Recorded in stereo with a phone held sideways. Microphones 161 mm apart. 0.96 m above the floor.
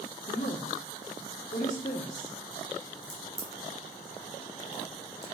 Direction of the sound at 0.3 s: 50° left (ahead or behind).